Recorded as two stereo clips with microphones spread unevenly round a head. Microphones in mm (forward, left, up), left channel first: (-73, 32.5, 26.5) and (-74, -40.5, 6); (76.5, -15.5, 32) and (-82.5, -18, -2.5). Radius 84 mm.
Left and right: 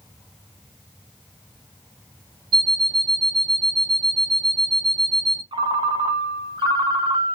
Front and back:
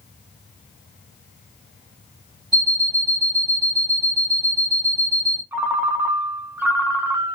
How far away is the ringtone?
About 0.6 m.